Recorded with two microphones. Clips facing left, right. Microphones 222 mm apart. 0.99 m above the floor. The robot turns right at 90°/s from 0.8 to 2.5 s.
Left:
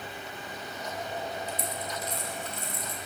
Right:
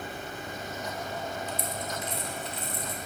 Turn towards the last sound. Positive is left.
turn(degrees=45)  # may be behind; listen again after turning